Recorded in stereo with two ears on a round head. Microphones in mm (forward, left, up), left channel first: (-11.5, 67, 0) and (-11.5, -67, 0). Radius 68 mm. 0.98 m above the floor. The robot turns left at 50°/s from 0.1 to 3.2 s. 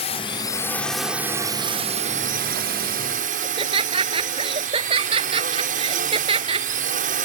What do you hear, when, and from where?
0.0 s a drone: 45° left; by 7.2 s 110° right
3.4 s laughter: 40° right (ahead or behind)